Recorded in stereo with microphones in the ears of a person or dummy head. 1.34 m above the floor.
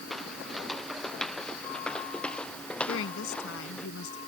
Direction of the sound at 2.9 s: 80° left.